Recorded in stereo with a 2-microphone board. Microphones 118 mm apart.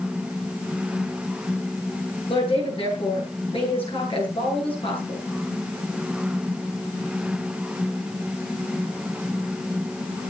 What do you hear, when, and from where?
2.3 s a woman speaking: 50° left (ahead or behind), 9 m